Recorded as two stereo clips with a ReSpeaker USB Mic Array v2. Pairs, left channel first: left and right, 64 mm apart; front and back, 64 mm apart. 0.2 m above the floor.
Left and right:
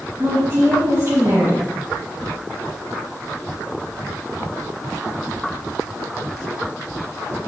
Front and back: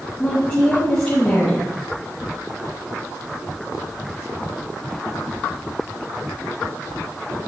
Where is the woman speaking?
65° right, 2.5 m.